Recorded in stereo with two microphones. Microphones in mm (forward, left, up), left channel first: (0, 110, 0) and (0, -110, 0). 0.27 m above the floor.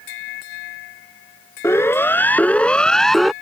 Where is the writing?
No writing in this recording.